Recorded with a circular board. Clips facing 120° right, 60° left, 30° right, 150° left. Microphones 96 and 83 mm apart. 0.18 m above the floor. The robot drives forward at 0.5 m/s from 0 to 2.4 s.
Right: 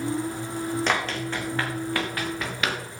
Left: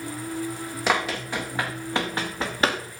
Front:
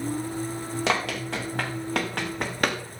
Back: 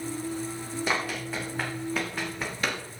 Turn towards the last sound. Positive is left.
turn(degrees=5)